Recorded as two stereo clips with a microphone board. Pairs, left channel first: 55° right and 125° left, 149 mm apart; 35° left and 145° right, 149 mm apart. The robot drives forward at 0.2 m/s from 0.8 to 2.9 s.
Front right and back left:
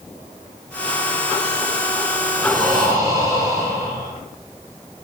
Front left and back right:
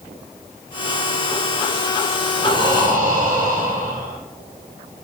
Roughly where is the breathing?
Behind.